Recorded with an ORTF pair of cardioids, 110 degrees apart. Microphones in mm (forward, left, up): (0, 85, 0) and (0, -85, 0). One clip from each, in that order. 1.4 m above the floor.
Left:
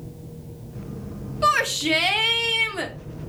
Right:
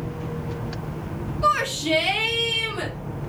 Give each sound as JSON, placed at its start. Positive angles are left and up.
{"t": 1.4, "sound": "a shout", "azimuth_deg": 45, "distance_m": 1.8}